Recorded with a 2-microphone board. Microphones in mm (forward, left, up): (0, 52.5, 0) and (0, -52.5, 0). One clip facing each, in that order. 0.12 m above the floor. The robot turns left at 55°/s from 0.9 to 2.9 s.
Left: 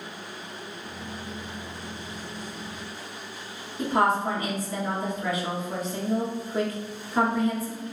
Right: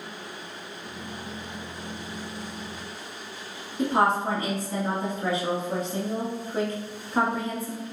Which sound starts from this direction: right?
A woman speaking, at 3.8 s.